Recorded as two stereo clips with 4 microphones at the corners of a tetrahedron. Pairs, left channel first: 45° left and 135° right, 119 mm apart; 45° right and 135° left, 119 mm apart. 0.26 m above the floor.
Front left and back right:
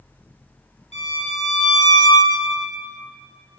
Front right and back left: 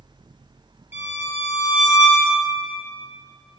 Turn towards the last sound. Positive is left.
turn(degrees=65)